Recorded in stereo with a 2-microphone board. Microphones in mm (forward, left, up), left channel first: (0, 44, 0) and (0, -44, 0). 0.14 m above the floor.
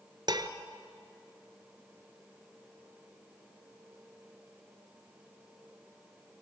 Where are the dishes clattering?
55° right (ahead or behind), 1.4 m.